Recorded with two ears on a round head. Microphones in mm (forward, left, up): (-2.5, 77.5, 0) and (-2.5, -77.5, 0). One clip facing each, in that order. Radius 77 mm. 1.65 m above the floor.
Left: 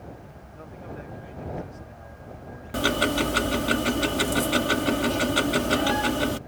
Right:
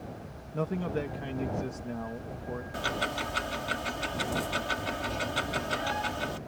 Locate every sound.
0.5 s a man speaking: 80° right
2.7 s ticking: 65° left (ahead or behind)